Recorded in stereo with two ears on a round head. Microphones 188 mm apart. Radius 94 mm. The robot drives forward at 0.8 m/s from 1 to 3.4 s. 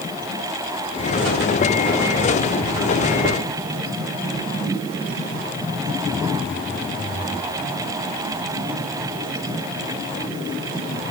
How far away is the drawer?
No drawer in this recording.